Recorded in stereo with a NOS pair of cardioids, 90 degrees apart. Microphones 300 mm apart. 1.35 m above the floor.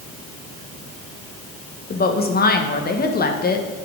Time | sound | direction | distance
1.9 | a woman speaking | 30° left | 1.2 m